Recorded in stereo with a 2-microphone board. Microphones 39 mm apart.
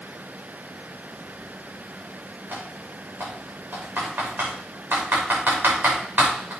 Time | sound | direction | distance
2.5 | typing on a keyboard | 60° right (ahead or behind) | 5.5 m